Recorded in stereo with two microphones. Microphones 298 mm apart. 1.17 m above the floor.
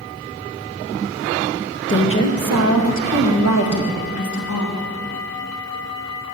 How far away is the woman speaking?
About 0.8 m.